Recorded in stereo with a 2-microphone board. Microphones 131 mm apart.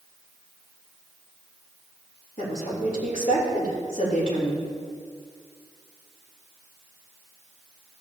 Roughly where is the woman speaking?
Left.